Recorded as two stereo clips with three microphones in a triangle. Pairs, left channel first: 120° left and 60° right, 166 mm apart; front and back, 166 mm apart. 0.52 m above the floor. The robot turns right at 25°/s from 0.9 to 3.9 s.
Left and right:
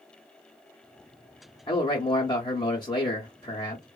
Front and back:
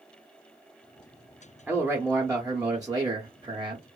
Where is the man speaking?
105° left, 0.7 m; by 3.9 s 160° left, 0.7 m.